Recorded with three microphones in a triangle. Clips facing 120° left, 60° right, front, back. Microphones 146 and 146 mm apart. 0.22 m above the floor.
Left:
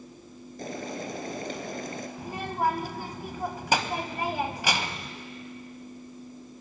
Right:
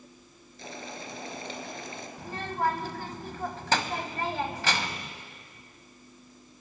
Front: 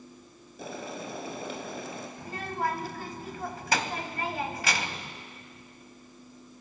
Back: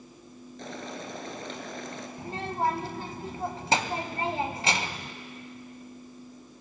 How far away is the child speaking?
About 0.9 m.